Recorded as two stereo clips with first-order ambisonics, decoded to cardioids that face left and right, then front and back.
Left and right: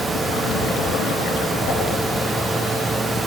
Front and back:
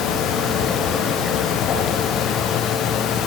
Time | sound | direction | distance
1.7 | a whoosh | 55° left | 10 m